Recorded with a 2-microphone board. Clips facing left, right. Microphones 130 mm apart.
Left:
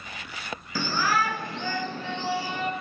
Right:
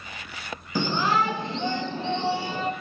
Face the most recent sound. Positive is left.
turn(degrees=-25)  # may be behind; listen again after turning